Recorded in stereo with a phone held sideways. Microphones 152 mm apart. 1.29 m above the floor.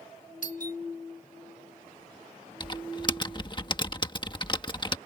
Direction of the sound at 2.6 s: 30° left (ahead or behind).